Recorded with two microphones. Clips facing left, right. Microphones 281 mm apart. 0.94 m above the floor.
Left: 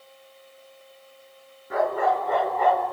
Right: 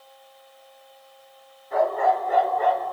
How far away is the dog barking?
About 4.5 m.